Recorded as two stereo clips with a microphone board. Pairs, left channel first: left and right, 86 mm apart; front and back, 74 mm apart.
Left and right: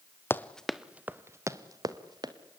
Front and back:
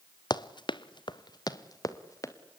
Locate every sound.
0.3 s running footsteps: 25° left, 1.0 m; by 2.3 s 50° right, 2 m